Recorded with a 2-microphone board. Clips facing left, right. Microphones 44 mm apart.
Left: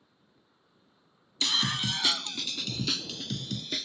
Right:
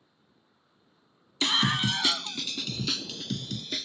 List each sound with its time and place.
1.4 s a scream: 30° right (ahead or behind); by 3.9 s 5° left (ahead or behind)